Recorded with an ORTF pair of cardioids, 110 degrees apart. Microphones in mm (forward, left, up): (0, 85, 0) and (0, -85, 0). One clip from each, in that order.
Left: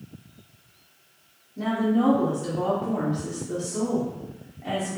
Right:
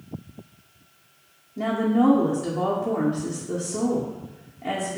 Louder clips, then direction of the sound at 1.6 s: Right 2 dB; 20° right.